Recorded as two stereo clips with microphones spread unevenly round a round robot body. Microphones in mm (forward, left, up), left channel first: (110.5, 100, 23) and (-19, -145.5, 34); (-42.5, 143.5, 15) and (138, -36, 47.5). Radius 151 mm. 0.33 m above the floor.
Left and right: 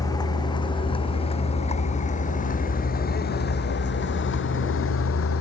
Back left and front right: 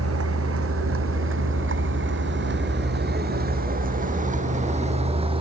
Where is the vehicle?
15° right; by 5.4 s 25° left.